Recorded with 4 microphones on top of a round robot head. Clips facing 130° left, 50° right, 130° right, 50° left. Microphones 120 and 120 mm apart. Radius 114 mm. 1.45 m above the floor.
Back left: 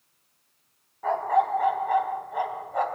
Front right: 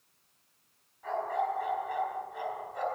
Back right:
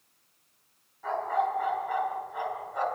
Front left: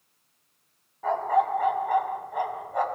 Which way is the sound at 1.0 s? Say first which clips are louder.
Back left 8 dB, front left 5 dB; 90° left.